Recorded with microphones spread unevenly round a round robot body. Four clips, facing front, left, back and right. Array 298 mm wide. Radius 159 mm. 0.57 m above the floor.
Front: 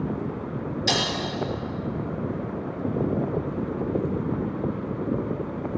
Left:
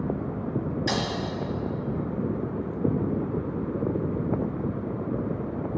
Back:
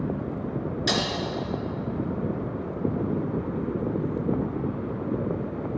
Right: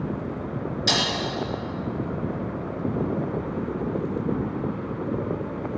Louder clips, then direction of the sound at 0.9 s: Right 3 dB, front 1 dB; 160° right.